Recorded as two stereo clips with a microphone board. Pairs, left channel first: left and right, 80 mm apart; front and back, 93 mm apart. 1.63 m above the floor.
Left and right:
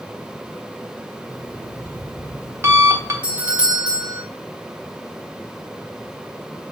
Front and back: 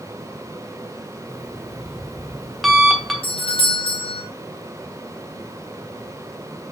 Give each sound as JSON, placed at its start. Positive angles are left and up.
{"t": 1.3, "sound": "an alarm clock", "azimuth_deg": -90, "distance_m": 0.8}
{"t": 3.2, "sound": "a doorbell", "azimuth_deg": -15, "distance_m": 1.0}